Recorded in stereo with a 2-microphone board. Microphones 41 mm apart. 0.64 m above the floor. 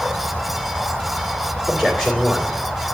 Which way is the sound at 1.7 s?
10° right (ahead or behind).